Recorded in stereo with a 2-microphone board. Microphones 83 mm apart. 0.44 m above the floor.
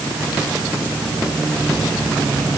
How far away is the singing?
No singing in this recording.